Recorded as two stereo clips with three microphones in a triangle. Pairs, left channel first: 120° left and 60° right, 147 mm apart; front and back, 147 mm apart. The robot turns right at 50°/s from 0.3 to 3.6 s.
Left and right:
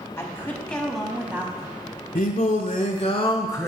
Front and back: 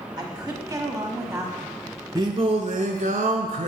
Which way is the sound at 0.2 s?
175° left.